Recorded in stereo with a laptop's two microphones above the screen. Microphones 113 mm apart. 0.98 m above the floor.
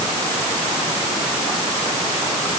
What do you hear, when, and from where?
Only background noise.